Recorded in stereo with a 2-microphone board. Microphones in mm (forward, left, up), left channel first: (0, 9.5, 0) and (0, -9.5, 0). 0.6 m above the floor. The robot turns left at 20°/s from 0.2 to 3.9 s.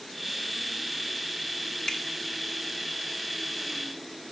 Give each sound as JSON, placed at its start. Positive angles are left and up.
{"t": 1.9, "sound": "a finger snap", "side_deg": 35, "distance_m": 0.8}